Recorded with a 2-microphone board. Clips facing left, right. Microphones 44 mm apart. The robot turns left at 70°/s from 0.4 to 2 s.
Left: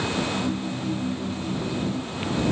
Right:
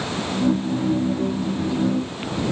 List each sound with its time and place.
Only background noise.